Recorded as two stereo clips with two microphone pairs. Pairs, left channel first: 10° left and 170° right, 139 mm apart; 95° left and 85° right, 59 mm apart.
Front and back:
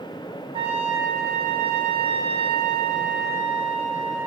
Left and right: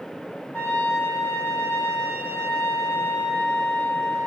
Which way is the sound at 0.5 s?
145° left.